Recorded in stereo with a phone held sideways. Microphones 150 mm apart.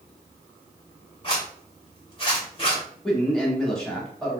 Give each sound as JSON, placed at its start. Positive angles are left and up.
{"t": 1.2, "sound": "a zipper", "side_deg": 35, "distance_m": 2.0}
{"t": 3.0, "sound": "a man speaking", "side_deg": 5, "distance_m": 1.9}